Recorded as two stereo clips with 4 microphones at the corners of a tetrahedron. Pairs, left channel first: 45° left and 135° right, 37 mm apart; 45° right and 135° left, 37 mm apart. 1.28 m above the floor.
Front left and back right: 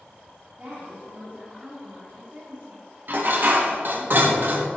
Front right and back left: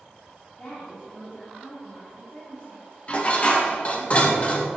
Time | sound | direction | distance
0.6 | a woman speaking | 85° right | 3.5 m
3.1 | dishes clattering | 100° right | 1.5 m